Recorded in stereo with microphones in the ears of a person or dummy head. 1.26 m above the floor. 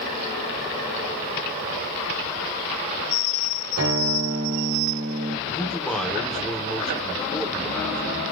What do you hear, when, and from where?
3.8 s a guitar: 75° right (ahead or behind), 1.8 m
5.5 s a man speaking: 5° left (ahead or behind), 1.2 m